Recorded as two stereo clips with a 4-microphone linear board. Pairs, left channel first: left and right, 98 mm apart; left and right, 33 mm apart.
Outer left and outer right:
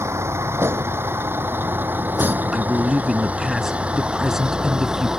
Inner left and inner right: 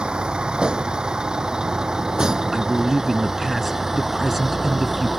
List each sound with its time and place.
0.0 s a vehicle: 30° right (ahead or behind); by 5.2 s 5° right (ahead or behind)
2.5 s a man speaking: 5° right (ahead or behind)